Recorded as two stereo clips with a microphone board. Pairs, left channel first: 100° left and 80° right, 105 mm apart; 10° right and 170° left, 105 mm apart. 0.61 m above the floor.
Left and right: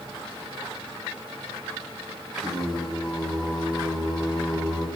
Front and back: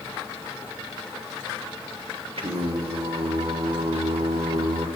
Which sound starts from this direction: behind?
Singing, at 2.4 s.